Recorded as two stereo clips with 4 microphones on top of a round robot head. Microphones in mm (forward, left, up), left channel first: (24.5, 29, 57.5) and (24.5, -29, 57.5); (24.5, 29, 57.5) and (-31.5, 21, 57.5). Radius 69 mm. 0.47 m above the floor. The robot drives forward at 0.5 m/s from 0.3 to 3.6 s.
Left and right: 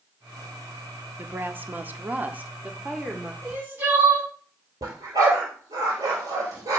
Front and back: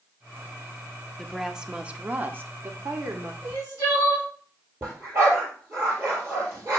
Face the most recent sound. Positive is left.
turn(degrees=-120)